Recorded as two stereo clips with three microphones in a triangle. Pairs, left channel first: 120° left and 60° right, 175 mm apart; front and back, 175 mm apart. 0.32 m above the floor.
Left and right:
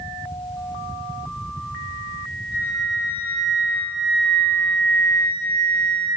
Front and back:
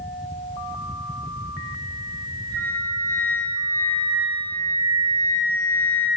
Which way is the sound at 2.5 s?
115° left.